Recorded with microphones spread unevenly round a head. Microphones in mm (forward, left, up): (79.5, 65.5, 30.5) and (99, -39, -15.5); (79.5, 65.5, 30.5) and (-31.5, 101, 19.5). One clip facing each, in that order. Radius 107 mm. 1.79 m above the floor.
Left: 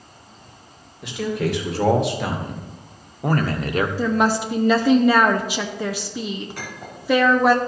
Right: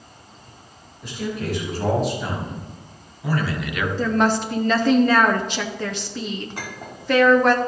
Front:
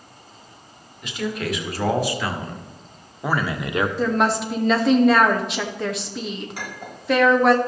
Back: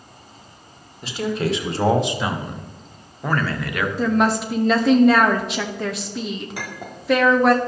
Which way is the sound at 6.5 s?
165° right.